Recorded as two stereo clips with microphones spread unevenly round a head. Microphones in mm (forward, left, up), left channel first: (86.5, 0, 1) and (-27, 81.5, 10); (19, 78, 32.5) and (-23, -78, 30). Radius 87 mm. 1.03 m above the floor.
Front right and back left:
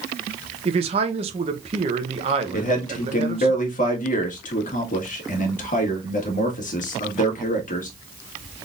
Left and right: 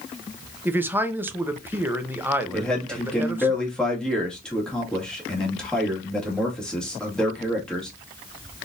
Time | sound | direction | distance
0.7 | a man speaking | 175° right | 0.8 m
2.5 | a man speaking | 10° right | 1.8 m